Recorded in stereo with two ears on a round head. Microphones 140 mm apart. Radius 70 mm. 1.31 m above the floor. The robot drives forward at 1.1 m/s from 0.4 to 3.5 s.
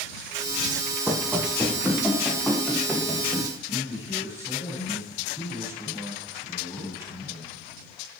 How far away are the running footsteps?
About 3 m.